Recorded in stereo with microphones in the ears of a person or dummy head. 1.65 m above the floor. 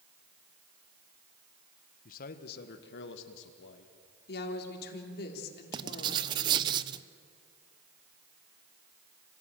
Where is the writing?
30° right (ahead or behind), 0.9 m.